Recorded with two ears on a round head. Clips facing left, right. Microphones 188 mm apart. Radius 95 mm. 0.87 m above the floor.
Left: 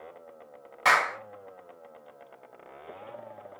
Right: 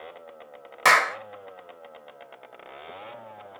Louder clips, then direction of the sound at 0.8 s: Right 4 dB; 60° right (ahead or behind).